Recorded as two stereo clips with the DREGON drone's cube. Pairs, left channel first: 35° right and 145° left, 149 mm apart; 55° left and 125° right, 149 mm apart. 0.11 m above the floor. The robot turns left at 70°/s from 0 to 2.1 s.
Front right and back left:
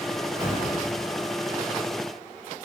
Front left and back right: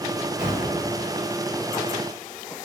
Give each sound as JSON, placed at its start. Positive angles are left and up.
{"t": 0.4, "sound": "an explosion", "azimuth_deg": 160, "distance_m": 1.7}